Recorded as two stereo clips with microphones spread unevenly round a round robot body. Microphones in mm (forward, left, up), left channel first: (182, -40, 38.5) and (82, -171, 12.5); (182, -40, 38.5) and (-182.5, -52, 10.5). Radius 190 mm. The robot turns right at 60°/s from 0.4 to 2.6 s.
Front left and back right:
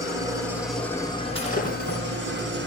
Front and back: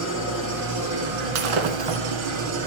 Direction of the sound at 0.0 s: 105° left.